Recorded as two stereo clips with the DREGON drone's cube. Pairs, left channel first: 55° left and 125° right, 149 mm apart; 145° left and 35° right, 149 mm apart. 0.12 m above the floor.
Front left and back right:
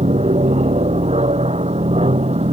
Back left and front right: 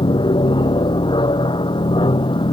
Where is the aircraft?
160° right.